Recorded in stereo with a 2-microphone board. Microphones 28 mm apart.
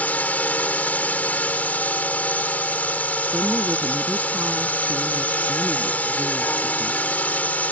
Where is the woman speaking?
80° right.